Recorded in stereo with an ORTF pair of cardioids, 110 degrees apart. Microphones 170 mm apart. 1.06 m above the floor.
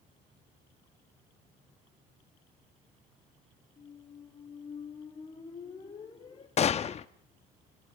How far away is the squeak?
About 3.5 m.